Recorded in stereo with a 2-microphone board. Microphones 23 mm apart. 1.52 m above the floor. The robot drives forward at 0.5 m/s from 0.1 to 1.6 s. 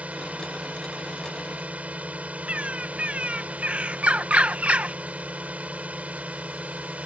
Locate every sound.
0.0 s a drone: 80° right
2.5 s a bird: 75° right (ahead or behind)